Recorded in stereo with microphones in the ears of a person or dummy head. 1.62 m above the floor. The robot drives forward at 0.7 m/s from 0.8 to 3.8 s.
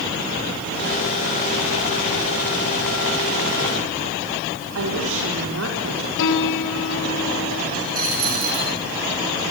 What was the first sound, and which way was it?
A woman speaking, 75° right (ahead or behind).